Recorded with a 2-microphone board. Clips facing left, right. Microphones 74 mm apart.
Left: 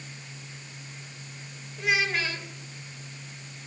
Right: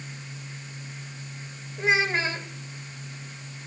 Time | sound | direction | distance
1.8 | a child speaking | 30° right (ahead or behind) | 2.5 m